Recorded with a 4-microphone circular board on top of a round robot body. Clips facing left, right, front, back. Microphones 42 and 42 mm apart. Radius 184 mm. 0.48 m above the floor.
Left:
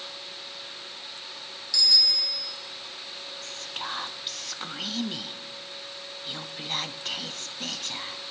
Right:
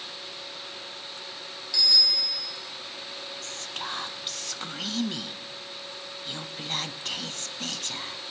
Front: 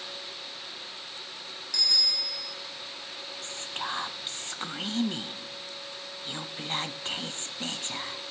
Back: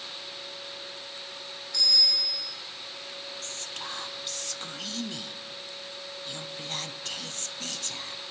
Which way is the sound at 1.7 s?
15° right.